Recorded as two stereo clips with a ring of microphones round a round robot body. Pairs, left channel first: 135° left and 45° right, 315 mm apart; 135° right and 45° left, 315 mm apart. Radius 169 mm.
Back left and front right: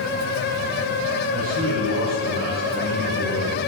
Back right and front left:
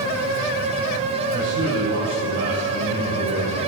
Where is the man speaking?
5° right, 3 m.